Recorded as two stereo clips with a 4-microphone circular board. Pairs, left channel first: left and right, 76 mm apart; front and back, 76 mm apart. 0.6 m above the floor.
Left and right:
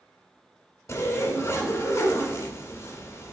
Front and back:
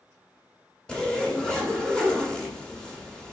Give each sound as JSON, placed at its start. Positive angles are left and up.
{"t": 0.9, "sound": "a zipper", "azimuth_deg": 75, "distance_m": 1.5}